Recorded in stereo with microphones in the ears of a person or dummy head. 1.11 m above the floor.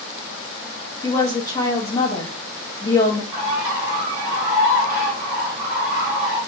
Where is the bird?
5° right (ahead or behind), 1.0 m.